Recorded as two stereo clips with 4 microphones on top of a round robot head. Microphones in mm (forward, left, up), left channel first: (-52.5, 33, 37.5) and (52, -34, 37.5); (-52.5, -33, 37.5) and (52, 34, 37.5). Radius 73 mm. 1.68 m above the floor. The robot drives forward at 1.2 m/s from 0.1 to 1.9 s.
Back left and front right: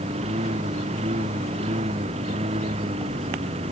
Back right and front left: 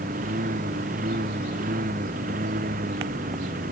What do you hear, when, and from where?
0.0 s a lawn mower: 10° left